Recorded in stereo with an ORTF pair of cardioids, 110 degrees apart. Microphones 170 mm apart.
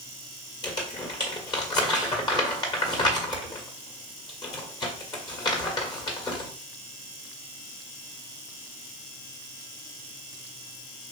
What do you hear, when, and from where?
0.6 s crumpling: 25° left, 1.5 m